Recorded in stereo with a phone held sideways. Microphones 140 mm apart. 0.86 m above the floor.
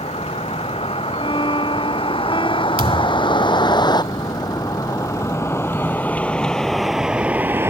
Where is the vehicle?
45° left (ahead or behind); by 7.7 s 15° right (ahead or behind).